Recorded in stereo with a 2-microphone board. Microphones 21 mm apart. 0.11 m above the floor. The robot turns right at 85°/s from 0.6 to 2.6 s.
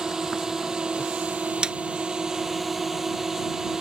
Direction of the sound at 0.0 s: 30° right (ahead or behind).